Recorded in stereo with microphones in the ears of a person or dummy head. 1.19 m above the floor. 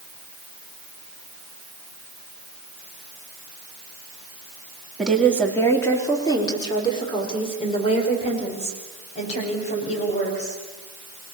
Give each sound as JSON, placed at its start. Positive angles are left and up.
{"t": 5.0, "sound": "a woman speaking", "side_deg": 5, "distance_m": 2.5}